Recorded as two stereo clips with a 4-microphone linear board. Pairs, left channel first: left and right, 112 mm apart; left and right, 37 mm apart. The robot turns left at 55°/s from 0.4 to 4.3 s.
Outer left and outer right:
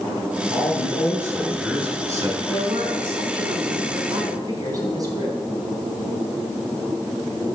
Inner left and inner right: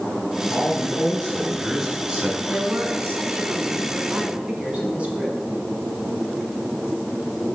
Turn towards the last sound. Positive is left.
turn(degrees=-145)